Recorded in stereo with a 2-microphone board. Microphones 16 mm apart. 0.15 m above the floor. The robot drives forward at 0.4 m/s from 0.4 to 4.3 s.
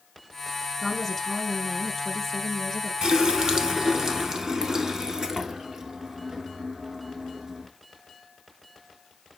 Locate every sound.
0.8 s a woman speaking: 15° left (ahead or behind), 1.4 m; by 2.9 s 10° left (ahead or behind), 2.0 m
3.0 s a running tap: 45° right (ahead or behind), 1.1 m; by 7.7 s 40° right (ahead or behind), 1.3 m